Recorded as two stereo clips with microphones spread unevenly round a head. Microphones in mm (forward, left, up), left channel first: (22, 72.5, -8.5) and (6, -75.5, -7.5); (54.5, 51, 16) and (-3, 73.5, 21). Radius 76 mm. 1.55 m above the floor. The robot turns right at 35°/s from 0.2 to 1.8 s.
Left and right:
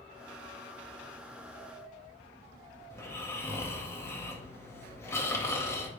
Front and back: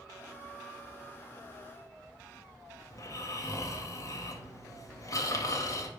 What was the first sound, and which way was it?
Snoring, 10° left.